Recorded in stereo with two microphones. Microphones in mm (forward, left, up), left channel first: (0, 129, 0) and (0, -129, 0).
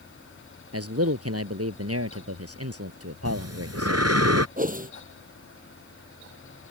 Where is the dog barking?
No dog barking in this recording.